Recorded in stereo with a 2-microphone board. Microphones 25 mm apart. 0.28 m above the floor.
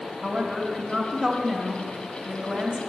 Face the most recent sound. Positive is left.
turn(degrees=-5)  # may be behind; listen again after turning